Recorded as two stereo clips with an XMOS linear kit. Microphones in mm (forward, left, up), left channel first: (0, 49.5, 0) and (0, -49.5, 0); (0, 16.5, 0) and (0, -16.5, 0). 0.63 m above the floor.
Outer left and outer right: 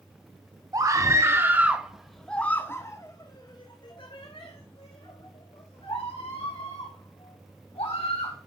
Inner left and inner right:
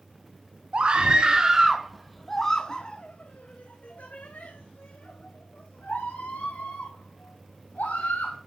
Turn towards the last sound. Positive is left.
turn(degrees=80)